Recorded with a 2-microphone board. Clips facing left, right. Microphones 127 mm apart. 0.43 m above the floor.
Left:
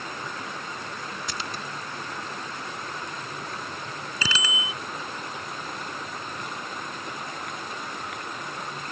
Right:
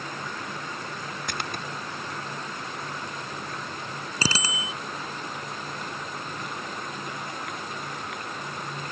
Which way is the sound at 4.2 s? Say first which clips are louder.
Right 2 dB; 35° right (ahead or behind).